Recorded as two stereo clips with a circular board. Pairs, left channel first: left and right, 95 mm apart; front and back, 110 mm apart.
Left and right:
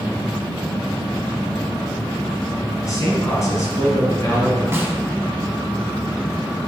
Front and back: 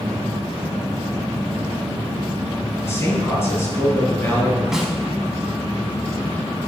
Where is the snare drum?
100° right, 0.6 m.